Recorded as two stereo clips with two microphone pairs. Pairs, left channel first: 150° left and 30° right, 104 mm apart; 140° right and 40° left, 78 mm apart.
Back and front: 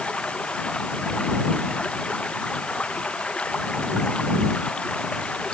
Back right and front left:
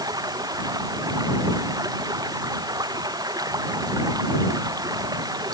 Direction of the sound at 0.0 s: 70° left.